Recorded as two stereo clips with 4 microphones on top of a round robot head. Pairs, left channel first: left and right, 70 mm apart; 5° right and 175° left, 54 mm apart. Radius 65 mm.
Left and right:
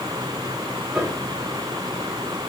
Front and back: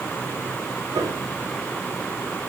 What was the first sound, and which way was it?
A piano, 170° right.